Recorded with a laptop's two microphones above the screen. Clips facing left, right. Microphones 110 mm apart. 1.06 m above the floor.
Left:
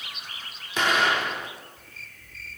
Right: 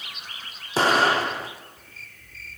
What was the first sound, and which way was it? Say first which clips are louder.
An explosion: right 4 dB; 35° right (ahead or behind).